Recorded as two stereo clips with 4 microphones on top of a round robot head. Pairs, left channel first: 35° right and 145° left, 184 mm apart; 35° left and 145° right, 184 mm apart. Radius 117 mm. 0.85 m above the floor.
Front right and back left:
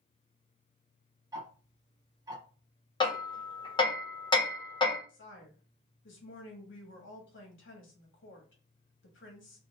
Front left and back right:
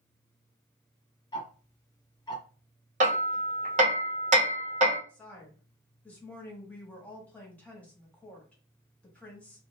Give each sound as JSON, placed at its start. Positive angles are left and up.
{"t": 1.3, "sound": "ticking", "azimuth_deg": 90, "distance_m": 1.1}
{"t": 3.0, "sound": "hammering", "azimuth_deg": -100, "distance_m": 1.2}
{"t": 5.1, "sound": "a woman speaking", "azimuth_deg": -45, "distance_m": 1.2}